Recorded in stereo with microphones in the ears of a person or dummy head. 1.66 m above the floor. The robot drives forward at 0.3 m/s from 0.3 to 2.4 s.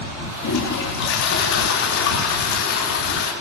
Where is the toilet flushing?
70° left (ahead or behind), 3.5 m; by 3.3 s 60° left (ahead or behind), 3.5 m.